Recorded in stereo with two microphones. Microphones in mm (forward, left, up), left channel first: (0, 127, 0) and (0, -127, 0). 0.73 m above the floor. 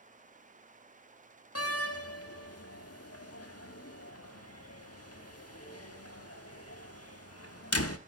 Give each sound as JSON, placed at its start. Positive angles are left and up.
{"t": 1.6, "sound": "a door slam", "side_deg": 70, "distance_m": 1.2}